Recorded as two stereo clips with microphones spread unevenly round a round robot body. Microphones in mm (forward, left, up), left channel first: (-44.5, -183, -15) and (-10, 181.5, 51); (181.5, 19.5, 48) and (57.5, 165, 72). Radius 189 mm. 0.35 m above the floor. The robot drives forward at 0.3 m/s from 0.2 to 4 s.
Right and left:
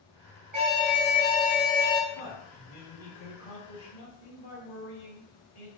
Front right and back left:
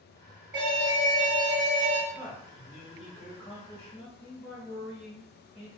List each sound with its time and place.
0.5 s an alarm: 115° left, 1.1 m; by 2.0 s 135° left, 1.3 m
2.1 s a man speaking: 50° right, 1.2 m; by 5.7 s 95° right, 1.1 m